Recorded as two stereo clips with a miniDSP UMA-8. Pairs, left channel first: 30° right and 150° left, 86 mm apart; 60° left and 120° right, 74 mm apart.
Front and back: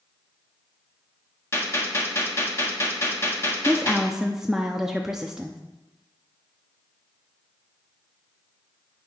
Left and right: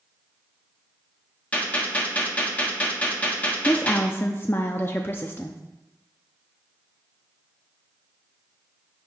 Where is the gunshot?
5° left, 1.3 m.